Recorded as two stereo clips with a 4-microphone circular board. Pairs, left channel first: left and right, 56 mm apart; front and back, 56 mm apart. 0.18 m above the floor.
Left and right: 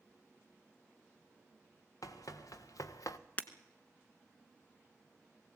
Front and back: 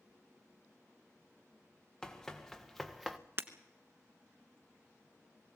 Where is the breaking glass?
145° left, 1.1 m.